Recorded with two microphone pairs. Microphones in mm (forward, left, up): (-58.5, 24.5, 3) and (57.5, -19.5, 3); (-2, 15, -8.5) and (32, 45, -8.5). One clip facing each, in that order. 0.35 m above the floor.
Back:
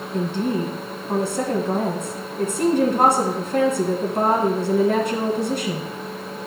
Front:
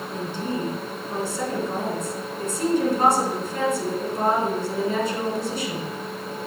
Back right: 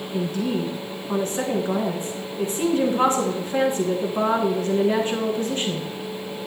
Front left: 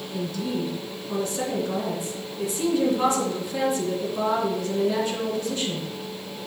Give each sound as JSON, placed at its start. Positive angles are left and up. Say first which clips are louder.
{"t": 0.1, "sound": "a woman speaking", "louder": "back 6 dB, back right 4 dB", "azimuth_deg": 170, "distance_m": 3.0}